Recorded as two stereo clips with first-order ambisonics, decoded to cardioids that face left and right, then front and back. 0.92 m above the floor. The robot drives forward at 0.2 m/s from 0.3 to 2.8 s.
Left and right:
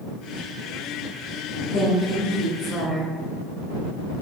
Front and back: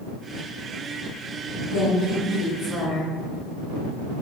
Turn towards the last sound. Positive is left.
turn(degrees=70)